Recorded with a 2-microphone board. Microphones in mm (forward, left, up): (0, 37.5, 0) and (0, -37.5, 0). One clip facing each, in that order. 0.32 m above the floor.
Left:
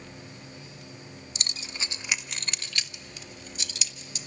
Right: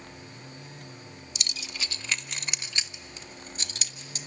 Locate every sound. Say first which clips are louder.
1.4 s keys jangling: even; 40° left (ahead or behind), 0.8 m; by 4.3 s 50° right (ahead or behind), 1.5 m